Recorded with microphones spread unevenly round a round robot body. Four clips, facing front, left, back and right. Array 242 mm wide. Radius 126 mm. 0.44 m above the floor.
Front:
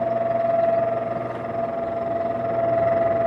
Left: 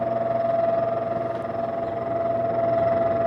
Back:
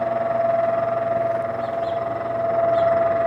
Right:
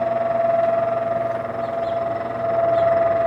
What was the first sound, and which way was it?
Only background noise.